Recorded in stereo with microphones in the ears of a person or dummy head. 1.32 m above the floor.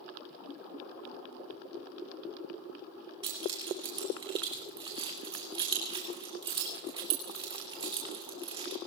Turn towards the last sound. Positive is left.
turn(degrees=-25)  # may be behind; listen again after turning